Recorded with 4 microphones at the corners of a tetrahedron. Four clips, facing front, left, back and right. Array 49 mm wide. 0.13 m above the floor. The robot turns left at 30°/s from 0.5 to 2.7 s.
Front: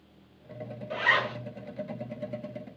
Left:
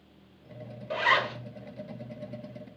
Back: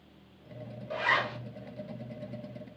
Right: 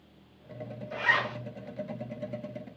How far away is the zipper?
About 1.1 m.